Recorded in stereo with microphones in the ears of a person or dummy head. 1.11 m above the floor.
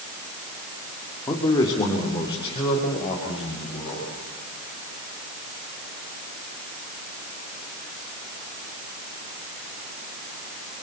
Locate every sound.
1.3 s a man speaking: 20° left (ahead or behind), 2 m; by 4.1 s 35° left (ahead or behind), 5.5 m